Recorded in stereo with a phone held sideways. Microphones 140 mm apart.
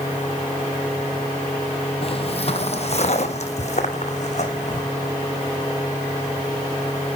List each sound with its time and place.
2.0 s footsteps: 45° left (ahead or behind), 1.3 m; by 4.8 s 55° left (ahead or behind), 3 m